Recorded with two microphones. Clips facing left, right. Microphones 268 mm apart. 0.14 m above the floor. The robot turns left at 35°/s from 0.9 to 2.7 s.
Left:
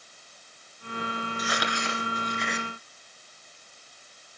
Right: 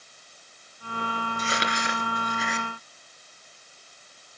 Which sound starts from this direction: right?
Crumpling, at 1.4 s.